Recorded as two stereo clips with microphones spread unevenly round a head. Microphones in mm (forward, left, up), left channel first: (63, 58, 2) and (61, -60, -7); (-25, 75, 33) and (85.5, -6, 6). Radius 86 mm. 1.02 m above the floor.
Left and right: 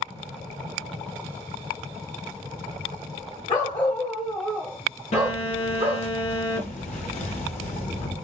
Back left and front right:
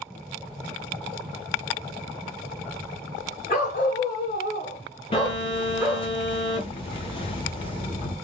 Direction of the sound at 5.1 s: 105° left.